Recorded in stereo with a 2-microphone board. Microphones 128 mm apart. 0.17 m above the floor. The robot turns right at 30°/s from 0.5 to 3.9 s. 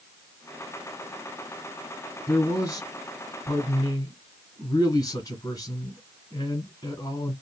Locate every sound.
2.3 s a man speaking: 55° left, 1.6 m; by 7.3 s 100° left, 1.6 m